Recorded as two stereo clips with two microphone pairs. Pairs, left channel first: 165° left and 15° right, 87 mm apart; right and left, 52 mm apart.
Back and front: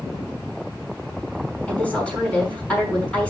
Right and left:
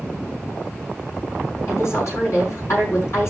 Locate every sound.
1.7 s a woman speaking: 115° right, 5 m